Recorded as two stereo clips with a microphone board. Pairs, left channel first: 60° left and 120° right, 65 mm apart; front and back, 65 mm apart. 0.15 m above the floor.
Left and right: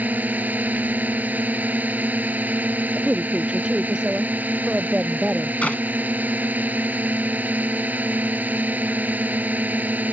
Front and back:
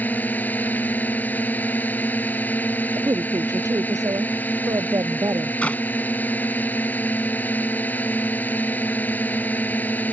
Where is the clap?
30° left.